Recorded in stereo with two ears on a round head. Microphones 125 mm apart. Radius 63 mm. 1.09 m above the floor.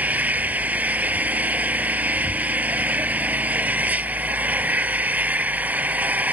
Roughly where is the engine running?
Centre.